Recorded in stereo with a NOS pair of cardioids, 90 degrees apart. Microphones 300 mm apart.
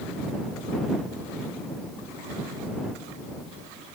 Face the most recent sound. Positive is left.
No sound to turn to.